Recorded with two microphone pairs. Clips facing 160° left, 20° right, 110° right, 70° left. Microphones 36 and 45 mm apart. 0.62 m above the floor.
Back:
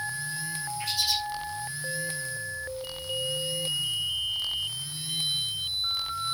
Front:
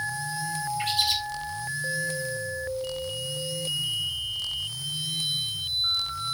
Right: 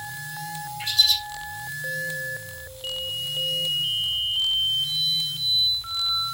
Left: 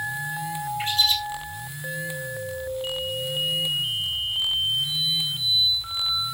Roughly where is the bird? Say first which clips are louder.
Front 3 dB, right 1 dB; ahead.